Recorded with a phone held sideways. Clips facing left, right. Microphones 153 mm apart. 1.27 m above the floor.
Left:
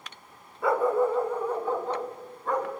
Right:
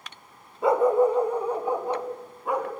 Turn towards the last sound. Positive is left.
turn(degrees=-10)  # may be behind; listen again after turning